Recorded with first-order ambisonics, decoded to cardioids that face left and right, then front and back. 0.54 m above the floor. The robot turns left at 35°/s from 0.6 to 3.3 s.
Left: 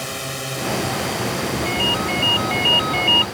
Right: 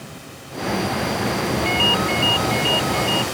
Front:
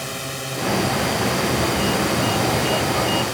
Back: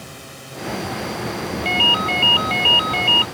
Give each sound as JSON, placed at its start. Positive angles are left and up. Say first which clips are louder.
{"t": 0.0, "sound": "a drone", "louder": "left 11 dB, front 9 dB", "azimuth_deg": 55}
{"t": 1.6, "sound": "a ringtone", "louder": "right 3 dB, back 5 dB", "azimuth_deg": -165}